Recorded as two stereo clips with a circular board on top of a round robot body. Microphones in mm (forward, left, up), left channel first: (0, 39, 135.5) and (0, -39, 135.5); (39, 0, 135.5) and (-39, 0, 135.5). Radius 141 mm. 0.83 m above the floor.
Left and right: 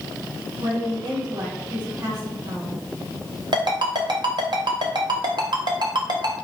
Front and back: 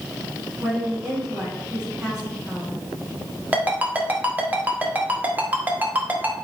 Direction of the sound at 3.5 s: 110° right.